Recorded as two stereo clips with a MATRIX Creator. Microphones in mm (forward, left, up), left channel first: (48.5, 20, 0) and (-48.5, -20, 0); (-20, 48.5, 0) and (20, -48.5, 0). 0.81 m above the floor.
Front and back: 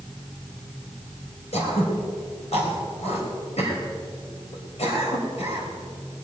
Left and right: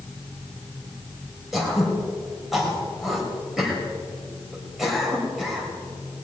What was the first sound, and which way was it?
Throat clearing, 20° left.